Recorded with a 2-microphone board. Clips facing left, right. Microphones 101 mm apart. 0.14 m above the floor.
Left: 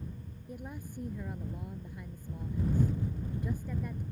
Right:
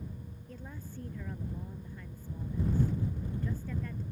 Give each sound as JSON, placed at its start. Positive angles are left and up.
{"t": 0.5, "sound": "a woman speaking", "side_deg": 15}